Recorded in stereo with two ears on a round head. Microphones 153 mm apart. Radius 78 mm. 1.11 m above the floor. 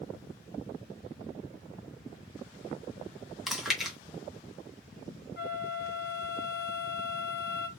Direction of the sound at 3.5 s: Centre (ahead or behind).